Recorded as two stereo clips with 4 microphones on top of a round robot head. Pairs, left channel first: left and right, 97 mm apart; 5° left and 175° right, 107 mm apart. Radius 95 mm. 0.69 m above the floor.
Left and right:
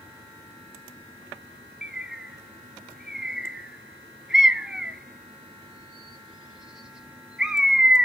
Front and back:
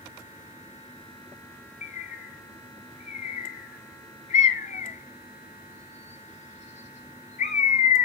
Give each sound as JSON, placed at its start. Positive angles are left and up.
{"t": 1.8, "sound": "a bird", "azimuth_deg": -5, "distance_m": 0.6}